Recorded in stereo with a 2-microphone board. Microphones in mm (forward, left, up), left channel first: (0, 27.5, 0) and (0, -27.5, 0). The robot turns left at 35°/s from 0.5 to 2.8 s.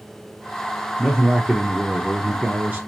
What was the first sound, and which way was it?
A man speaking, 20° left.